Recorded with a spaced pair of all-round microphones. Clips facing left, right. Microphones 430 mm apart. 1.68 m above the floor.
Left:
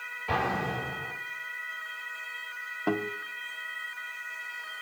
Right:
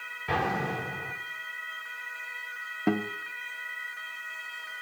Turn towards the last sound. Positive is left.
turn(degrees=-40)  # may be behind; listen again after turning